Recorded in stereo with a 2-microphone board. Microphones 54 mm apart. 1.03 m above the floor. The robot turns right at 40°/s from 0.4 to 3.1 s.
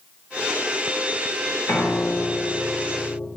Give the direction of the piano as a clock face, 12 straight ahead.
10 o'clock.